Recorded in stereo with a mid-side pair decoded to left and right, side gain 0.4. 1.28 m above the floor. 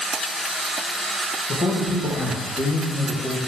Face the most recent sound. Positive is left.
turn(degrees=35)